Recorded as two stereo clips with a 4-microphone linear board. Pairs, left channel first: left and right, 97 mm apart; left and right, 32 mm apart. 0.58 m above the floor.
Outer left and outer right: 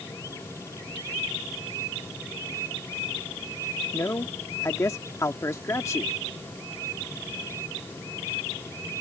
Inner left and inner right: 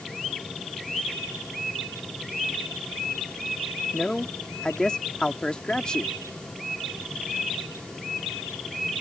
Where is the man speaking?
30° left (ahead or behind).